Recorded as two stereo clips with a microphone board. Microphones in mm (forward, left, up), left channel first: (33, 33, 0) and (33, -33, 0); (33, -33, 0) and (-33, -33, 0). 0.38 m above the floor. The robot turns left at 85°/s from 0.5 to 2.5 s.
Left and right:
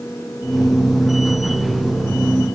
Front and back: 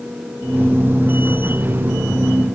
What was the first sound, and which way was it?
Only background noise.